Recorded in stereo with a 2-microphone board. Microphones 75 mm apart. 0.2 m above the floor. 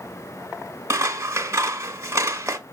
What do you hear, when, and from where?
0.9 s scissors: 35° right (ahead or behind), 1.4 m